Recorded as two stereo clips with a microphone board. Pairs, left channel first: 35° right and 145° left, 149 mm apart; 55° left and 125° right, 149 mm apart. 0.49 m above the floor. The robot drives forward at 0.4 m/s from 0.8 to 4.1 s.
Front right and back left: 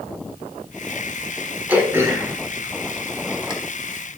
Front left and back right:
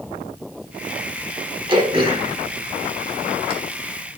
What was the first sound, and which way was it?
Throat clearing, 145° right.